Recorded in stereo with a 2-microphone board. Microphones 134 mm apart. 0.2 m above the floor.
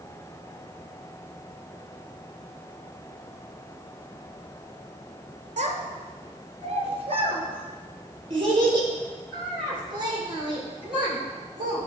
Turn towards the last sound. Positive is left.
turn(degrees=-35)  # may be behind; listen again after turning